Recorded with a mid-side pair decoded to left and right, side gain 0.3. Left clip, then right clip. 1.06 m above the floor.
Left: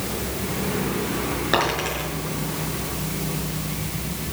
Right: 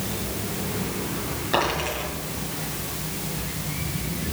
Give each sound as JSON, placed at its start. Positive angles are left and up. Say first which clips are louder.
{"t": 1.5, "sound": "a dropped coin", "louder": "left 1 dB", "azimuth_deg": 70, "distance_m": 6.5}